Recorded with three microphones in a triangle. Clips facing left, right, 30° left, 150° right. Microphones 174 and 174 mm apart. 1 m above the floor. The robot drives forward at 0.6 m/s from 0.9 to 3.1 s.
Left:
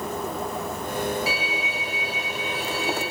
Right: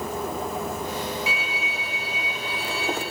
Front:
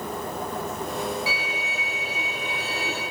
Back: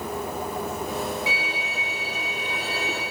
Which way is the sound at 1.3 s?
145° left.